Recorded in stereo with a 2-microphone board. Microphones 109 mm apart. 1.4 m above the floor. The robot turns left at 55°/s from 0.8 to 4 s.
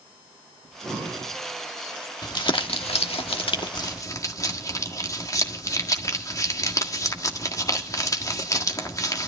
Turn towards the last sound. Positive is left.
turn(degrees=35)  # may be behind; listen again after turning